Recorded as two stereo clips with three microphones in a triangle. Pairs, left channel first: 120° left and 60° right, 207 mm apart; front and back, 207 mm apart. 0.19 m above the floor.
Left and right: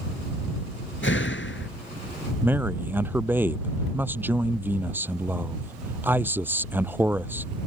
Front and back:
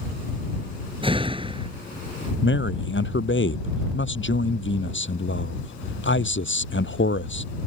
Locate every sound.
1.0 s a door slam: 115° left
2.4 s a man speaking: 20° left